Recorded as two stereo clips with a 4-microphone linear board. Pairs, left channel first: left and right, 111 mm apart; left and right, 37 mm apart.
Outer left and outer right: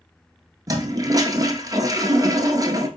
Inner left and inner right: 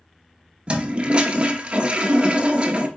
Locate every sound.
0.7 s a toilet flushing: 35° right (ahead or behind), 0.5 m